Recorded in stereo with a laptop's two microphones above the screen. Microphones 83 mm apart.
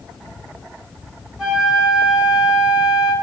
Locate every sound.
1.4 s a flute: centre (ahead or behind), 3 m